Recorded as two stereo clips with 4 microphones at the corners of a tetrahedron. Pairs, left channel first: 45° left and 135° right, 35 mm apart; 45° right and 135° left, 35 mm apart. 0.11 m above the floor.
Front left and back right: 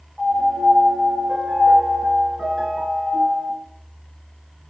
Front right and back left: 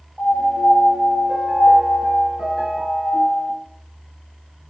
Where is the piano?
155° left, 1.0 m.